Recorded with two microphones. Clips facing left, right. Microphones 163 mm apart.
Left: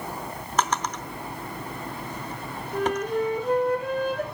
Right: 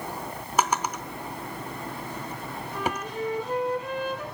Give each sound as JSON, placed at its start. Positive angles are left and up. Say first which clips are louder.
{"t": 0.6, "sound": "a drawer", "louder": "right 1 dB", "side_deg": -10, "distance_m": 0.8}
{"t": 2.7, "sound": "a flute", "louder": "left 7 dB", "side_deg": 55, "distance_m": 2.0}